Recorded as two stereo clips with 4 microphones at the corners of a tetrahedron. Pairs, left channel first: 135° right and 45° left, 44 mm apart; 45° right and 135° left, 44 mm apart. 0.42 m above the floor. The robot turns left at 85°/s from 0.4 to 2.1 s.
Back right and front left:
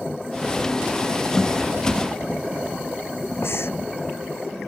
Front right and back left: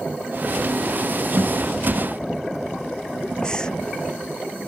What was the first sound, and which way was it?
A guitar, 150° left.